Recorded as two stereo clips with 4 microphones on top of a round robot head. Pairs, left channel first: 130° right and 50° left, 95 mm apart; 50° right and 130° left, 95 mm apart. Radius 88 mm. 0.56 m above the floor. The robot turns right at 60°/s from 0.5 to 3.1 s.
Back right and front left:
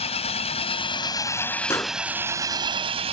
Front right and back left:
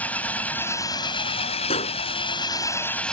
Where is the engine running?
125° right; by 3.1 s 35° left.